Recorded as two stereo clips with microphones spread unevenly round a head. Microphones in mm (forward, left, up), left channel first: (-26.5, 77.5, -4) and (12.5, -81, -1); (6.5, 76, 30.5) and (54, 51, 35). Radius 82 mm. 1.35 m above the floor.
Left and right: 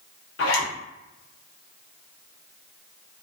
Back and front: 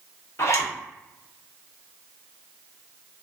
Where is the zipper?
120° left, 0.7 m.